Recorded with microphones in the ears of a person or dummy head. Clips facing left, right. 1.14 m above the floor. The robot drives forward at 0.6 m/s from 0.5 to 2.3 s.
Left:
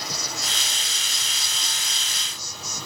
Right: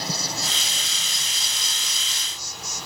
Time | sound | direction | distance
0.0 | an insect | 25° right (ahead or behind) | 0.8 m